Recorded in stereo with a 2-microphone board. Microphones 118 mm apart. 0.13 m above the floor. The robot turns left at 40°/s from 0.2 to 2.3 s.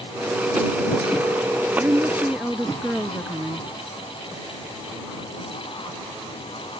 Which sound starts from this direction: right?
A woman speaking, at 1.8 s.